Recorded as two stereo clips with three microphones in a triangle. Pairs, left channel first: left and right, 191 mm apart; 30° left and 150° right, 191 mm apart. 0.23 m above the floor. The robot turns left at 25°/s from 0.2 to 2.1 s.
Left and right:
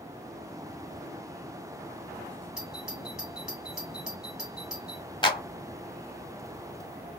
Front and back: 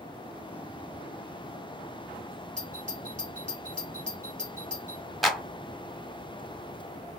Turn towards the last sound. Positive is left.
turn(degrees=120)